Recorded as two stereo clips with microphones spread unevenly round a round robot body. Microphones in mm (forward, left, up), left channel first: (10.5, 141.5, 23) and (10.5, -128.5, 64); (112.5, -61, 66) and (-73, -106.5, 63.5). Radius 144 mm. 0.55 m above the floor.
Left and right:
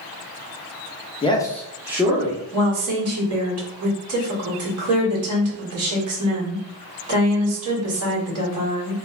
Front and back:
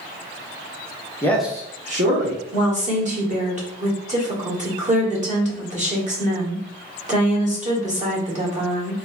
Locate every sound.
1.2 s a man speaking: 75° left, 0.9 m; by 2.4 s 165° right, 1.4 m
2.5 s a woman speaking: 120° right, 1.7 m